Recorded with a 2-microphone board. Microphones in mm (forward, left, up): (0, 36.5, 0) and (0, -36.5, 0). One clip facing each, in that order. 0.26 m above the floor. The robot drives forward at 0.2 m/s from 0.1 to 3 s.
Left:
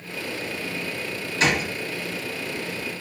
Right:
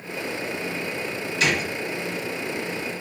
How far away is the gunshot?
About 1.6 m.